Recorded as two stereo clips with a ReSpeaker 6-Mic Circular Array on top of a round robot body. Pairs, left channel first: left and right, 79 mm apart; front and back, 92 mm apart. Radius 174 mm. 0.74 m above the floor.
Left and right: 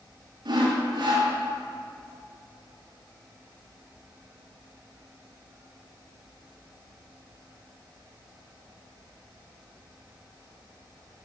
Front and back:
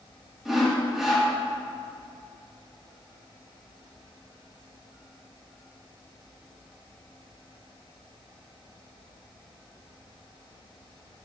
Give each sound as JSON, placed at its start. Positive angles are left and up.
{"t": 0.5, "sound": "sawing", "azimuth_deg": -95, "distance_m": 2.0}